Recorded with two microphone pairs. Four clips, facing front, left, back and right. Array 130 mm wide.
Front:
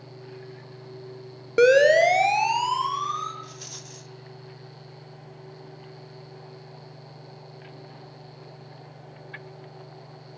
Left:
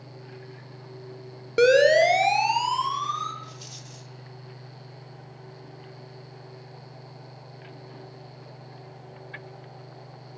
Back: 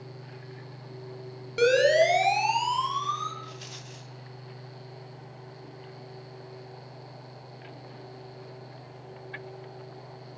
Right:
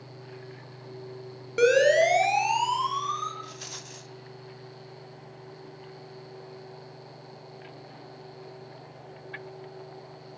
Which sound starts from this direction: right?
A rattle, at 3.4 s.